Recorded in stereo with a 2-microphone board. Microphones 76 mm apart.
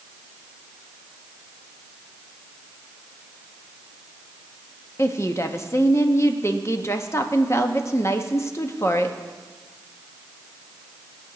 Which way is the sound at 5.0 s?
35° left (ahead or behind).